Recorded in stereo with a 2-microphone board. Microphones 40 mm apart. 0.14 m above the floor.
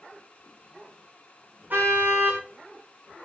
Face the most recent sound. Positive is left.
turn(degrees=-45)  # may be behind; listen again after turning